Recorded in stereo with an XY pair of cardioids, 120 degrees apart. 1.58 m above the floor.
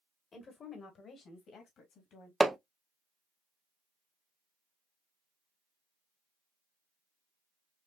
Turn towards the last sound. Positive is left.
turn(degrees=-10)